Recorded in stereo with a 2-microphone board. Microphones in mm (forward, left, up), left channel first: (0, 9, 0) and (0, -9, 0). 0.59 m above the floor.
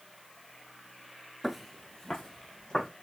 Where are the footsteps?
20° right (ahead or behind), 0.5 m; by 2.9 s 20° left (ahead or behind), 2.5 m.